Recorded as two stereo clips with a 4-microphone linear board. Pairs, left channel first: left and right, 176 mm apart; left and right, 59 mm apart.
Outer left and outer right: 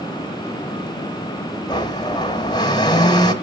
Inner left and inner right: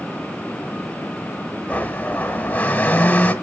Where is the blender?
25° left (ahead or behind), 1.3 m.